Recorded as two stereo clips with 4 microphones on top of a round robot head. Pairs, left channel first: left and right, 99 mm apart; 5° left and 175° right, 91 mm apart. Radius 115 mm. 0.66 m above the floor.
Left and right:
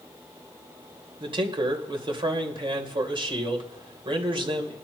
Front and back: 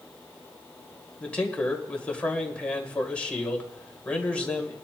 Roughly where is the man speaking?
Right.